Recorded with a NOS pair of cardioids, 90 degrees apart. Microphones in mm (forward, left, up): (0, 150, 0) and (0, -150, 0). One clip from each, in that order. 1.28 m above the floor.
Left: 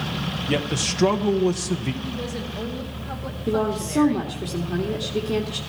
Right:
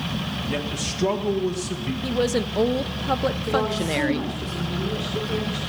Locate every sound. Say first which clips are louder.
0.5 s a man speaking: left 6 dB; 45° left, 0.9 m
2.0 s a woman speaking: right 8 dB; 55° right, 0.8 m
3.5 s a woman speaking: left 3 dB; 50° left, 2 m